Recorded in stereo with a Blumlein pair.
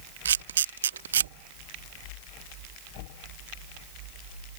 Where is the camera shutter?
65° right.